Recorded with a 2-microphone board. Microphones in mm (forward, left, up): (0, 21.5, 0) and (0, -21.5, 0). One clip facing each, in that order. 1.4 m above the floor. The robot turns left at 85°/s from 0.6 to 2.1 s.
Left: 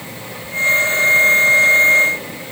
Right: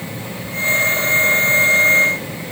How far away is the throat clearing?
No throat clearing in this recording.